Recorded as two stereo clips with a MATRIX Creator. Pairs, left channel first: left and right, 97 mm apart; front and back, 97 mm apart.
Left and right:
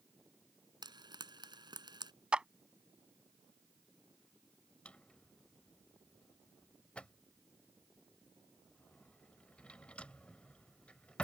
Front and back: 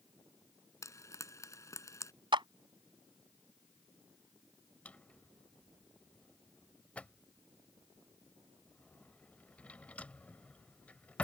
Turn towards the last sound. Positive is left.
turn(degrees=40)